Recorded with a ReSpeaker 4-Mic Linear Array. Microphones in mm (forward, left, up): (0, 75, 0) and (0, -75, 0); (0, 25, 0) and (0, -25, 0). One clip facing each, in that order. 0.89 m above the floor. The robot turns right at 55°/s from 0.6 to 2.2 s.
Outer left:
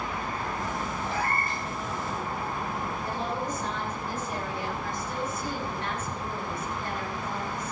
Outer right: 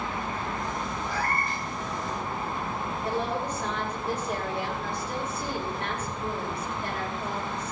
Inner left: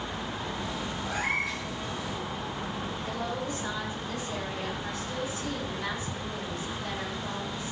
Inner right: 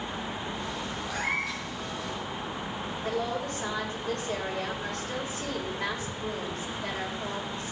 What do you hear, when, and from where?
1.1 s a cat meowing: 155° left, 5 m; by 1.6 s 175° right, 5 m
3.0 s a woman speaking: 70° right (ahead or behind), 4.5 m